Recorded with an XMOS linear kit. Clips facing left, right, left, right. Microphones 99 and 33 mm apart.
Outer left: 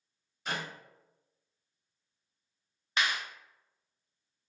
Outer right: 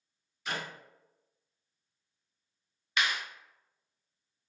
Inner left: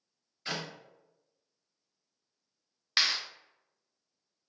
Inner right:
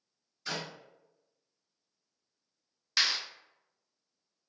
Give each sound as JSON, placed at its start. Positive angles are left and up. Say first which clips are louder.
{"t": 0.5, "sound": "a clap", "louder": "even, inner left 1 dB", "side_deg": 45, "distance_m": 1.6}
{"t": 3.0, "sound": "a clap", "louder": "even, inner left 1 dB", "side_deg": 35, "distance_m": 0.8}